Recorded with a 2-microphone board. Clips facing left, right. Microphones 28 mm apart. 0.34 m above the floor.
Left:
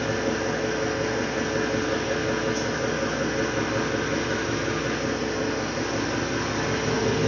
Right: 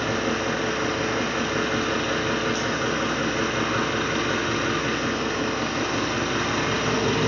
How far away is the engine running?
About 0.7 m.